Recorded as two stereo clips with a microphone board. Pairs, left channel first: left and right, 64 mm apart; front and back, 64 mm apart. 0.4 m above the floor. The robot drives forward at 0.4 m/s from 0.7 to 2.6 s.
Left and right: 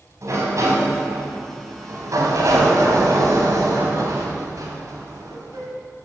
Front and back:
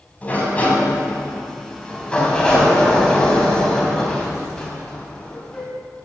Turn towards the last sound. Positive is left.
turn(degrees=-80)